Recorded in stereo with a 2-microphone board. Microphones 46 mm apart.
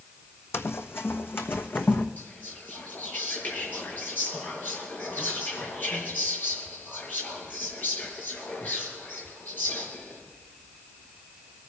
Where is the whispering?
45° left (ahead or behind), 5.5 m.